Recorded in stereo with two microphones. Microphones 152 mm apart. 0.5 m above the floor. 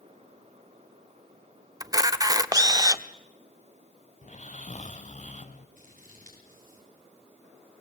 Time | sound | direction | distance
1.8 | a camera shutter | 25° right (ahead or behind) | 0.7 m
4.2 | snoring | 50° left (ahead or behind) | 1.1 m
5.8 | scissors | 60° right (ahead or behind) | 8 m